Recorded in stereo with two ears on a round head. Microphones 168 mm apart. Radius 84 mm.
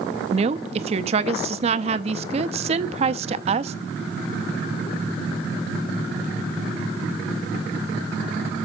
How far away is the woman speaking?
About 0.6 m.